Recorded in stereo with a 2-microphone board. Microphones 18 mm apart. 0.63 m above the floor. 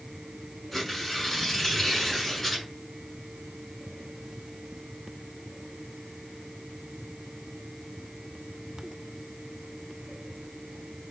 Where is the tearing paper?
15° left (ahead or behind), 6.5 m.